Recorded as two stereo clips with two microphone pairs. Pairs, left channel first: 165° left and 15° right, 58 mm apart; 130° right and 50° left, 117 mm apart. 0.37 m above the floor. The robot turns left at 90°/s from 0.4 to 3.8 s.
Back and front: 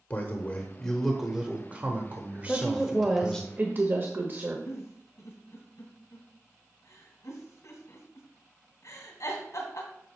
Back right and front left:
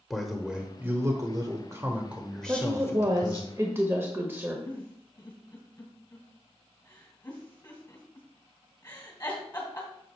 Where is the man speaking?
135° left, 0.9 m; by 3.5 s 140° right, 0.9 m.